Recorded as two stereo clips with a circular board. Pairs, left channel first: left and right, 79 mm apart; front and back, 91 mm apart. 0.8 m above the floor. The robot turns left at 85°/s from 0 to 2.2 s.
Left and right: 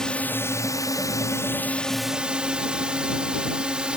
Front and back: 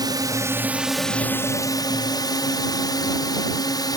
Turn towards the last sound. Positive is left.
turn(degrees=-15)